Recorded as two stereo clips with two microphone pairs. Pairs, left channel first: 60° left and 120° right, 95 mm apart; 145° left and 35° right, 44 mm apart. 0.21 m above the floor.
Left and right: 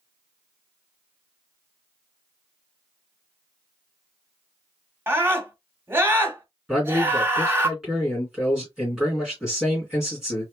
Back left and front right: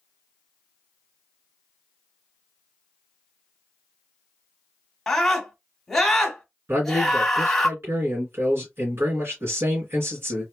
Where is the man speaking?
35° right, 3 m.